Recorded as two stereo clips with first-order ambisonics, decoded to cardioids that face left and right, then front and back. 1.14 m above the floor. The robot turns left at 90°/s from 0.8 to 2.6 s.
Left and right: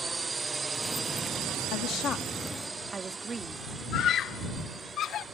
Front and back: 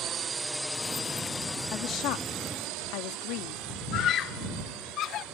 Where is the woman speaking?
60° left; by 3.6 s 20° right.